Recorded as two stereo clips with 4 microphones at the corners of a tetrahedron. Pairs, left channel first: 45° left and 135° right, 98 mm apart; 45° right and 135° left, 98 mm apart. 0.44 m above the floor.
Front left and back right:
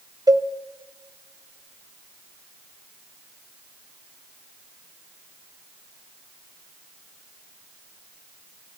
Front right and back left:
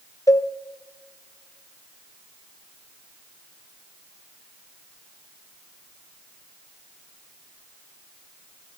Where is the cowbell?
95° right, 0.8 m.